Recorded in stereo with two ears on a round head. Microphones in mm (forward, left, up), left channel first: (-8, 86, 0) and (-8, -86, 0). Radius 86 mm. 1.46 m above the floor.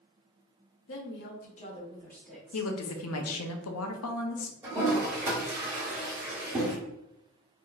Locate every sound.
0.9 s a woman speaking: 70° left (ahead or behind), 0.9 m; by 2.7 s 10° right (ahead or behind), 1.3 m
2.5 s a woman speaking: 80° left, 0.6 m
4.6 s a toilet flushing: 10° right (ahead or behind), 1.3 m